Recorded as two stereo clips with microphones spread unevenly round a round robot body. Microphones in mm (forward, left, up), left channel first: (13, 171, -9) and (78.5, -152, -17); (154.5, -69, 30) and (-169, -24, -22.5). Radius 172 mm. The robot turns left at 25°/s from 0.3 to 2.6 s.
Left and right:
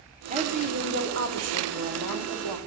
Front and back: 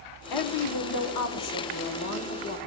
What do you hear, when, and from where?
0.3 s a woman speaking: 10° right, 1.5 m; by 2.6 s 70° right, 1.5 m